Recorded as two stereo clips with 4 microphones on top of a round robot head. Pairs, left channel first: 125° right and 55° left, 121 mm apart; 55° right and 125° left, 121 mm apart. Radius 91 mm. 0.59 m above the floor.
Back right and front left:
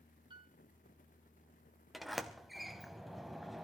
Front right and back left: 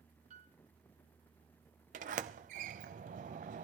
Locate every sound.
0.3 s a piano: 105° left, 1.3 m
1.9 s a sliding door: 145° left, 0.6 m